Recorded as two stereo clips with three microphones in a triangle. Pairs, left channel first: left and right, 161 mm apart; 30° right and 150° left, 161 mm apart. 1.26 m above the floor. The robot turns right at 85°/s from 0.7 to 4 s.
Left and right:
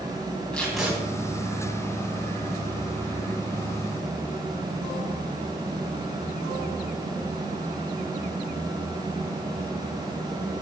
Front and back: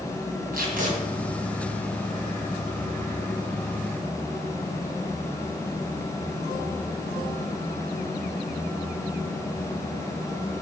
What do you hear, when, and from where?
0.5 s tape being pulled: 175° left, 3 m; by 0.9 s 165° right, 3 m